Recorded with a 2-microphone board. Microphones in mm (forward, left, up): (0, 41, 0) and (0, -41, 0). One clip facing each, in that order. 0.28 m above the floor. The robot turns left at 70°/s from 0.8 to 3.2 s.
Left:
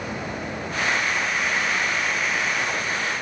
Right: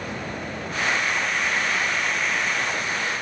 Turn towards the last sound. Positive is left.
No sound to turn to.